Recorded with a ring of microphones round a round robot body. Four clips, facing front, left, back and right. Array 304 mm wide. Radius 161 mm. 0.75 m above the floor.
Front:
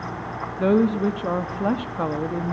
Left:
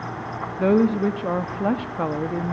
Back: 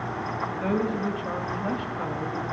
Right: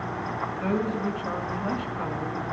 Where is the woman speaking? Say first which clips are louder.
Left 10 dB, front 9 dB; 50° left, 1.6 m.